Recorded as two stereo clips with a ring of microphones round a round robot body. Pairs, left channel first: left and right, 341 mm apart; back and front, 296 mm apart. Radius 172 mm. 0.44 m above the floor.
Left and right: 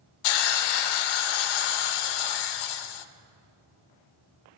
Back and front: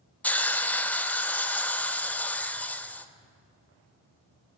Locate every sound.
0.2 s a hiss: 95° left, 0.6 m